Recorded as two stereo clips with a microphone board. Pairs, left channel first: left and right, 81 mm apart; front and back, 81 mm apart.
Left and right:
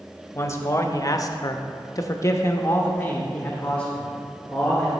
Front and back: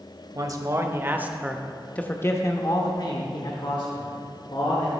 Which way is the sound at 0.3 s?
145° left.